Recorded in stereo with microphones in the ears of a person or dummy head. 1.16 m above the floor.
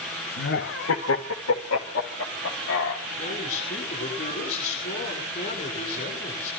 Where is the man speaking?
35° left (ahead or behind), 9.5 m.